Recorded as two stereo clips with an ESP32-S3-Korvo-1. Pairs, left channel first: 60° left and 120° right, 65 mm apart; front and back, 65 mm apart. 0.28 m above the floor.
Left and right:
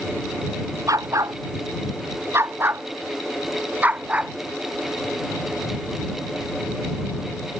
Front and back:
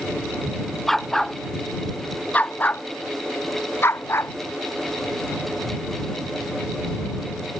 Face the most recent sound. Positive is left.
turn(degrees=-55)